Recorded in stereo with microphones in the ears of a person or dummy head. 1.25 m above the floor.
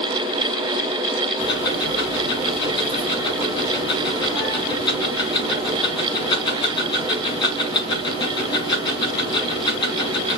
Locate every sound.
1.4 s ticking: 30° left (ahead or behind), 1.8 m